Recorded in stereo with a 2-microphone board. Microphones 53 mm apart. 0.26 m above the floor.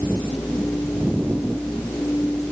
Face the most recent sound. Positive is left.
No sound to turn to.